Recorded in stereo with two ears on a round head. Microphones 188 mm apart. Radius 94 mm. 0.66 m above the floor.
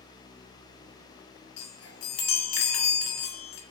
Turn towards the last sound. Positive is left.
turn(degrees=75)  # may be behind; listen again after turning